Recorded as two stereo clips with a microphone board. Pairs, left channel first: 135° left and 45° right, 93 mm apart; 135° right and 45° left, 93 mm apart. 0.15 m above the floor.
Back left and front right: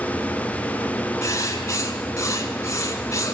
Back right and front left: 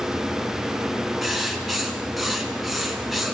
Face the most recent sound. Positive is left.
turn(degrees=135)